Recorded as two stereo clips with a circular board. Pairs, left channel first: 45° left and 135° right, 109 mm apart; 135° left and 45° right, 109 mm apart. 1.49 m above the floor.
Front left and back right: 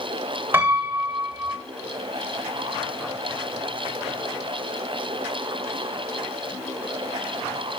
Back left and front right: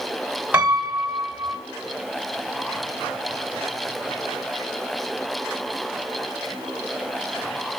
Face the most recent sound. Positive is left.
turn(degrees=-100)